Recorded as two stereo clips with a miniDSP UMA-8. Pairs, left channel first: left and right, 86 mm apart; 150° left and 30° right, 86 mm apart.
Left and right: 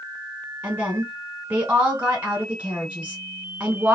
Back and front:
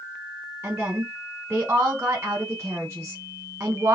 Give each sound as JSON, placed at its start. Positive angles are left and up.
{"t": 0.6, "sound": "a woman speaking", "azimuth_deg": -45, "distance_m": 1.3}